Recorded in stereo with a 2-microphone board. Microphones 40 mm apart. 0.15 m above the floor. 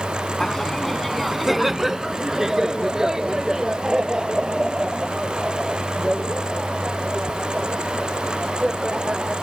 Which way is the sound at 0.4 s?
15° left (ahead or behind).